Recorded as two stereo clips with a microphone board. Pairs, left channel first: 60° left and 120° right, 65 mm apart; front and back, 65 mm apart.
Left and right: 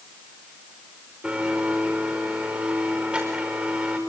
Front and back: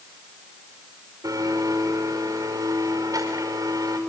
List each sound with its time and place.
1.2 s a blender: 170° left, 5 m